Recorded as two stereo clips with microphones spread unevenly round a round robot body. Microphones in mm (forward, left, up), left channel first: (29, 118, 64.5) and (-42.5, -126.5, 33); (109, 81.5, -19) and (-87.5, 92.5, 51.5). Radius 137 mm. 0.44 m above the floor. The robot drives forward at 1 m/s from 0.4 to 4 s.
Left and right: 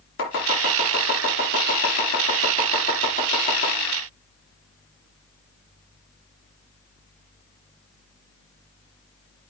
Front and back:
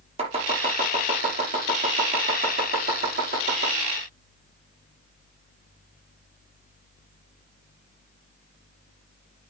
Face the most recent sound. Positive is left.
turn(degrees=145)